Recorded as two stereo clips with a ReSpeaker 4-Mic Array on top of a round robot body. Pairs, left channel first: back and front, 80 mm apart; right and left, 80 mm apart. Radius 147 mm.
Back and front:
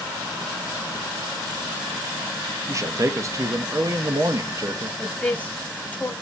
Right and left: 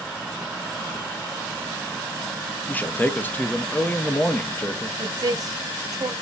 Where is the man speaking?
30° right, 0.7 m.